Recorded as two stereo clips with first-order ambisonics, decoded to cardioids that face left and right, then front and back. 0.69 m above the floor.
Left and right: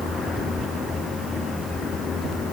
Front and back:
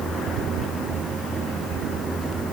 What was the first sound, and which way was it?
Only background noise.